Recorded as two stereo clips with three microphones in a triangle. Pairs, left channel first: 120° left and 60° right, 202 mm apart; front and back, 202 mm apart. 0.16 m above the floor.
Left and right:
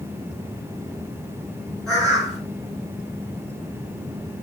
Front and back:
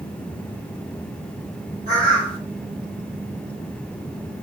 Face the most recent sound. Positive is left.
turn(degrees=-150)